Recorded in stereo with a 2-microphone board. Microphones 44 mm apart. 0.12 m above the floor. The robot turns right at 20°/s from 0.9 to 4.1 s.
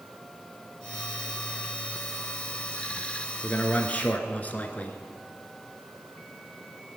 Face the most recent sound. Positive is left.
turn(degrees=35)  # may be behind; listen again after turning